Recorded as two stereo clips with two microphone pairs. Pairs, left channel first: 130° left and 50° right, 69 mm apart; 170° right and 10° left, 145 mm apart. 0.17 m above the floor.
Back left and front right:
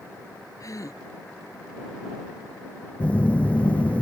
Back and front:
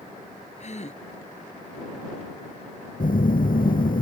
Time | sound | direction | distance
0.6 | a gasp | 160° left | ?
3.0 | a phone buzzing | 160° right | ?